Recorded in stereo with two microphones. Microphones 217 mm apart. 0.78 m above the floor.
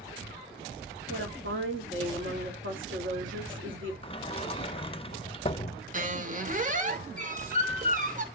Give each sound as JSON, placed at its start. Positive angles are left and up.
{"t": 1.1, "sound": "a woman speaking", "side_deg": -65, "distance_m": 2.0}
{"t": 4.0, "sound": "a sliding door", "side_deg": 25, "distance_m": 0.6}
{"t": 5.9, "sound": "a squeak", "side_deg": -35, "distance_m": 1.0}